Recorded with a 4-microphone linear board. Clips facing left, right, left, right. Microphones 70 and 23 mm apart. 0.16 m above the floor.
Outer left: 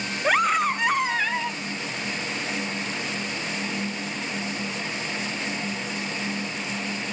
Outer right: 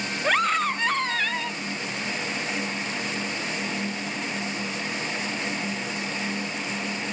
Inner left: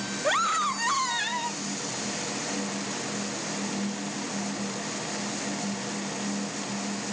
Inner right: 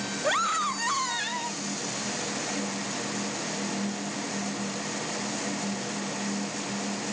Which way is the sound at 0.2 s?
5° left (ahead or behind).